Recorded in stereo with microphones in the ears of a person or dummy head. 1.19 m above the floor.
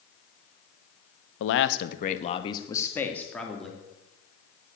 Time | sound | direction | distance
1.4 | a man speaking | 80° left | 1.1 m